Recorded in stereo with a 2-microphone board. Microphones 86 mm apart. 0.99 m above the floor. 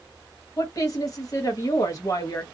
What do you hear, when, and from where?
0.6 s a woman speaking: 40° left (ahead or behind), 1.3 m